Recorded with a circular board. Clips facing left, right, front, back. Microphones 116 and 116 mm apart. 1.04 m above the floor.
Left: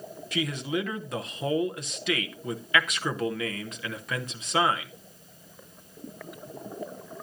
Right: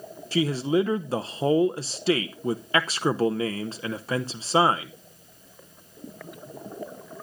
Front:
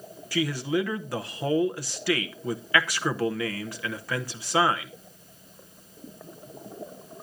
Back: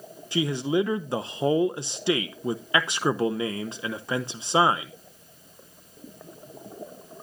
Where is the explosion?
No explosion in this recording.